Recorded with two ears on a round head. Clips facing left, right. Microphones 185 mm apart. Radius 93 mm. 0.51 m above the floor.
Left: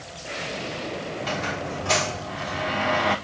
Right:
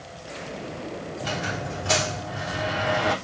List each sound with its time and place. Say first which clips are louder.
1.2 s a squeak: even; 5° right (ahead or behind), 2.5 m